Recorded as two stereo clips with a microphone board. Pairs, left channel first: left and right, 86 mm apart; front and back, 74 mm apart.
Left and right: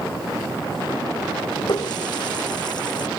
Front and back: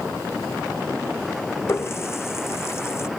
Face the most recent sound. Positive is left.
turn(degrees=55)